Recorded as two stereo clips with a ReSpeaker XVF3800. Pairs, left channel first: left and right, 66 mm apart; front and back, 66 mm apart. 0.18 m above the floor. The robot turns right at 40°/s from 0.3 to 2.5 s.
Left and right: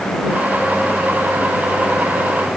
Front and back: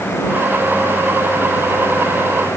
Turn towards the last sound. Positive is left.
No sound to turn to.